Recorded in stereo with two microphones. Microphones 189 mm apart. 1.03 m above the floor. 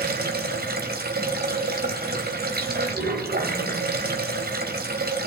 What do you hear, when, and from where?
0.0 s running water: 50° right (ahead or behind), 3 m